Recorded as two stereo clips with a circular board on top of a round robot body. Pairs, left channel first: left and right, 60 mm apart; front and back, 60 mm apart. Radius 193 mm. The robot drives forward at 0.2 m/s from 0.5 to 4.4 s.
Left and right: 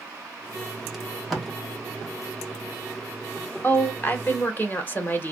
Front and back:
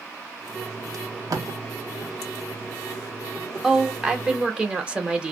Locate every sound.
0.9 s tape being pulled: straight behind, 1.1 m
3.6 s a woman speaking: 100° left, 1.0 m; by 5.3 s 120° left, 1.0 m